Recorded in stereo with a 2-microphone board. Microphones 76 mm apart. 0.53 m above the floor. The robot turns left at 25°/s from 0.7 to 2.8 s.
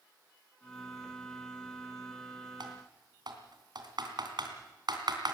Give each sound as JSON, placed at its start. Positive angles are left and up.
{"t": 2.6, "sound": "typing on a keyboard", "side_deg": -75, "distance_m": 3.0}